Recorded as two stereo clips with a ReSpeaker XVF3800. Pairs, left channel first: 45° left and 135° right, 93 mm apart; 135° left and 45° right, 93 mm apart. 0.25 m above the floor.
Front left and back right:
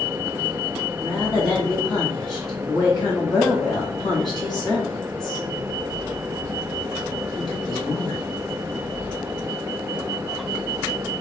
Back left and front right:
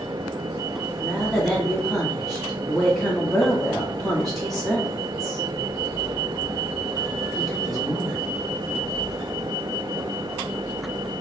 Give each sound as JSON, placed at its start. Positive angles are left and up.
{"t": 1.0, "sound": "a woman speaking", "azimuth_deg": 50, "distance_m": 2.0}